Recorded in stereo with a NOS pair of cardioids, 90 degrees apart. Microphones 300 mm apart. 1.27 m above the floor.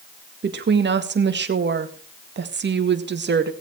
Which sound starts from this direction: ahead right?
A woman speaking, at 0.4 s.